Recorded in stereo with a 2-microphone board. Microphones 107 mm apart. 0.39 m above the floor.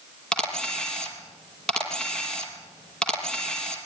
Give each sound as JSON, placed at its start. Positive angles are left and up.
{"t": 0.3, "sound": "a camera shutter", "side_deg": 5, "distance_m": 5.0}